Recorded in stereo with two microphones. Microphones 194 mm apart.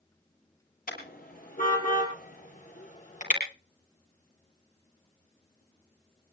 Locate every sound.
0.9 s a car horn: 45° left (ahead or behind), 7 m; by 3.4 s 35° left (ahead or behind), 7 m